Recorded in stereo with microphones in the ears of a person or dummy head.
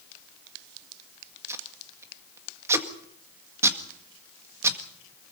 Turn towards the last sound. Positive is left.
turn(degrees=-20)  # may be behind; listen again after turning